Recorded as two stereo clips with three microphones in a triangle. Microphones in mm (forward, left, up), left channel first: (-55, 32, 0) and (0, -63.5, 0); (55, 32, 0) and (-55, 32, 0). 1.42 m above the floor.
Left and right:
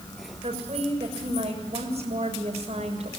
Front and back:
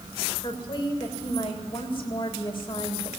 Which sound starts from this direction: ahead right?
A woman speaking, at 0.4 s.